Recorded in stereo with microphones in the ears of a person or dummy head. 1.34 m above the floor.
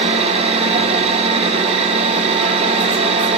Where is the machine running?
35° right (ahead or behind), 0.7 m.